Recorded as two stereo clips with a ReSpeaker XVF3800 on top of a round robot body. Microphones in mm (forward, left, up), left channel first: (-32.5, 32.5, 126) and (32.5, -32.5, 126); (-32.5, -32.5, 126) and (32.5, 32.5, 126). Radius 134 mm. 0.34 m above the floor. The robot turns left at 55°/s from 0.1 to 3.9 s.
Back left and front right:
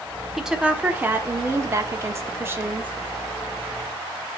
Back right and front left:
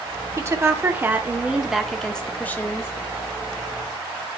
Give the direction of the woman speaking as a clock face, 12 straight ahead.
11 o'clock.